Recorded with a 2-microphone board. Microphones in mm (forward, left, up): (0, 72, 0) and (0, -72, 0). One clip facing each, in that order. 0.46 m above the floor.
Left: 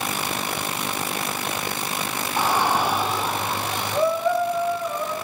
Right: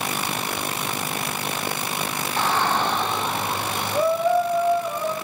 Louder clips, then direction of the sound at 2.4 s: Left 1 dB; 10° left (ahead or behind).